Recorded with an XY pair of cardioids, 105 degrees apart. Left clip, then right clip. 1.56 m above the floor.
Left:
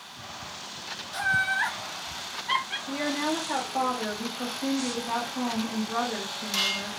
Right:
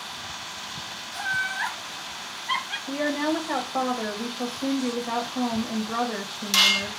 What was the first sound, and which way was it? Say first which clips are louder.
Laughter: left 2 dB; 50° left.